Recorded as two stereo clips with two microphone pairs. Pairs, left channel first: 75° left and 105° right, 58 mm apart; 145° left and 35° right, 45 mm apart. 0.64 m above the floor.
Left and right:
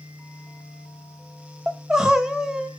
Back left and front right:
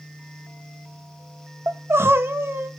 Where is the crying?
20° right, 0.8 m.